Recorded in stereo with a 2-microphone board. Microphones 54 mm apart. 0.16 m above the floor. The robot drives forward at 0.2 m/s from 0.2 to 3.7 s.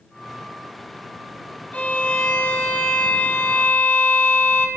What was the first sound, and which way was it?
A violin, 30° left (ahead or behind).